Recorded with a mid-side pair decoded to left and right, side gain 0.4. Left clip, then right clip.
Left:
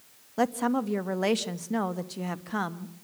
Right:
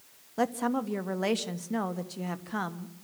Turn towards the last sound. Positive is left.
turn(degrees=20)